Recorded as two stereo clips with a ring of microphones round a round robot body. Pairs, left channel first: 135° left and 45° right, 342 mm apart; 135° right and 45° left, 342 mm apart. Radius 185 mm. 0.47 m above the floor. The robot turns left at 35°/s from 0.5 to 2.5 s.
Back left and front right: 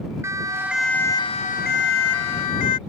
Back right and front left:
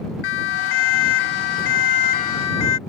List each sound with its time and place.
0.2 s a siren: 130° right; by 2.8 s straight behind